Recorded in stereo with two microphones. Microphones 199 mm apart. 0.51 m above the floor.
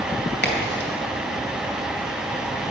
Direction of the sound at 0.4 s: 60° left (ahead or behind).